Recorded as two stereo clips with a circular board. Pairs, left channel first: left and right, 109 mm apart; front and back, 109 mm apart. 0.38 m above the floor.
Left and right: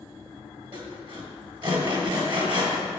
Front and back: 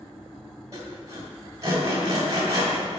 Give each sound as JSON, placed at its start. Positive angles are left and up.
{"t": 0.7, "sound": "sawing", "azimuth_deg": -125, "distance_m": 2.0}